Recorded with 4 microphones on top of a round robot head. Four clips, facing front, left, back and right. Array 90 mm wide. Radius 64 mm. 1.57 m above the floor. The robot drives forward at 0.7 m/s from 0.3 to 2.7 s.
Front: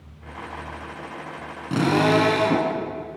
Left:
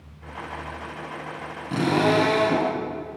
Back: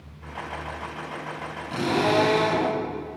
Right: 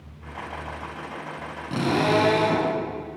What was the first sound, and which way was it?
A drill, 5° right.